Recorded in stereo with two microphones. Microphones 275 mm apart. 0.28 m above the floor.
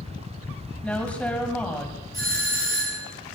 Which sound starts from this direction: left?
A doorbell, at 2.1 s.